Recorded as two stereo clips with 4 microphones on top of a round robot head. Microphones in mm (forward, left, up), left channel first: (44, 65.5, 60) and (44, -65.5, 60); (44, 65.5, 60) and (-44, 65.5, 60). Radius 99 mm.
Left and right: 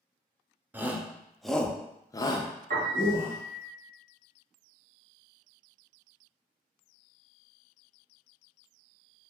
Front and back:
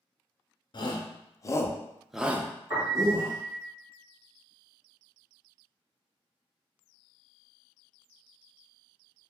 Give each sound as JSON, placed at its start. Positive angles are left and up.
{"t": 0.7, "sound": "a shout", "azimuth_deg": -15, "distance_m": 0.8}
{"t": 2.7, "sound": "a piano", "azimuth_deg": -115, "distance_m": 1.6}